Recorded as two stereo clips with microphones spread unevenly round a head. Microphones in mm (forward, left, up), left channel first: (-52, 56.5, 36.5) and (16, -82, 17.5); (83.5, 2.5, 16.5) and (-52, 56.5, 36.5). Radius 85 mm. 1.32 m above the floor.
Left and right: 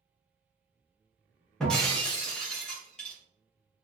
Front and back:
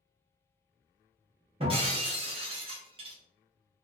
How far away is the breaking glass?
About 1.0 m.